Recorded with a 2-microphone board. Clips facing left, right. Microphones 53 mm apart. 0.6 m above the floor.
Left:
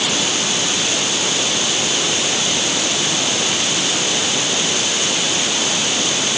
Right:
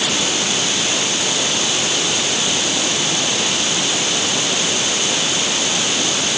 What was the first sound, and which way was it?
Only background noise.